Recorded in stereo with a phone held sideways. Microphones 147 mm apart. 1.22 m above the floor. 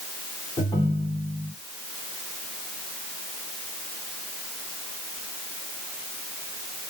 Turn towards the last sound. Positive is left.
turn(degrees=30)  # may be behind; listen again after turning